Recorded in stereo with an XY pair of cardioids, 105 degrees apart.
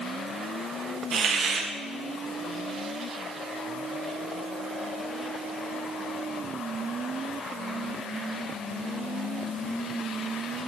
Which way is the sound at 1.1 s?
60° right.